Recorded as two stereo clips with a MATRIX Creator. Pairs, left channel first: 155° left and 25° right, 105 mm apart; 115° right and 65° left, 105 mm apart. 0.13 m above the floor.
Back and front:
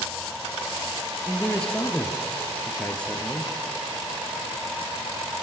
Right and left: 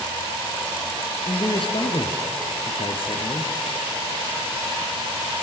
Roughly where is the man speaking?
Behind right.